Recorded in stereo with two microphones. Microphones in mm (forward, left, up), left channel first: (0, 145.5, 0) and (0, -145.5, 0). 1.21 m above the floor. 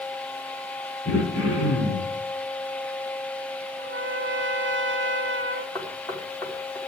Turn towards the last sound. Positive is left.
turn(degrees=10)  # may be behind; listen again after turning